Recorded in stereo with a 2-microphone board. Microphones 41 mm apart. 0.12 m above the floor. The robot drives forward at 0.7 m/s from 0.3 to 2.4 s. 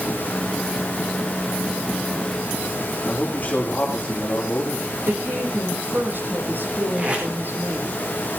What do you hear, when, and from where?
3.1 s a man speaking: 35° left (ahead or behind), 6.5 m
5.1 s a woman speaking: 55° right (ahead or behind), 5.5 m
7.0 s tape being pulled: 30° right (ahead or behind), 7 m